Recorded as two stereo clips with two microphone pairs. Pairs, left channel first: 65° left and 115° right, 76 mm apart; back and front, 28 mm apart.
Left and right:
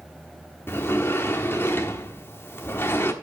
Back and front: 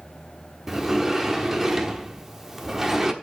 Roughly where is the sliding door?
Left.